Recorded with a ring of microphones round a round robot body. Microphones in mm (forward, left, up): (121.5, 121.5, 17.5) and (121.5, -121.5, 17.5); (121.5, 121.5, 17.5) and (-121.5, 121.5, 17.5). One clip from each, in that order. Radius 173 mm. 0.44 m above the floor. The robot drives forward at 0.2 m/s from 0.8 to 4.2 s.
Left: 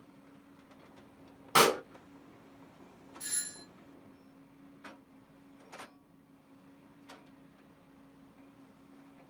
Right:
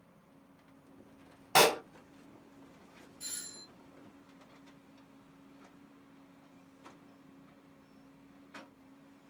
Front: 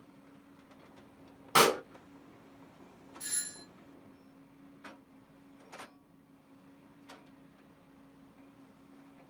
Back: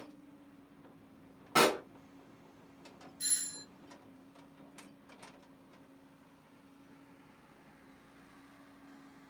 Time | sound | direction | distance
1.6 | a pop | 25° right | 1.2 m
3.2 | a doorbell | 150° left | 1.8 m